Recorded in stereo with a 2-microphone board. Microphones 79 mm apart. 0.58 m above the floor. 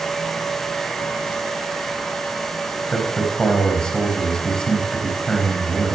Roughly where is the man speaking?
Centre.